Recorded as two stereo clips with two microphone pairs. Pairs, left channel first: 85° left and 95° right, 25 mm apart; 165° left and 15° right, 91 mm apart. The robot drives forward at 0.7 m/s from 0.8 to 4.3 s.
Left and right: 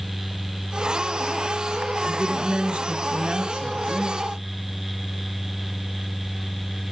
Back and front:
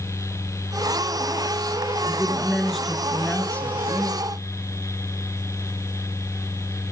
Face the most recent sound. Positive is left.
turn(degrees=-135)